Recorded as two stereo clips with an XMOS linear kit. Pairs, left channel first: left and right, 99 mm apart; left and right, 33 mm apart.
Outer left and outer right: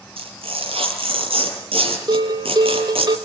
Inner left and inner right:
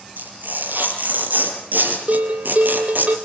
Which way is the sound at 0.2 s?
70° right (ahead or behind).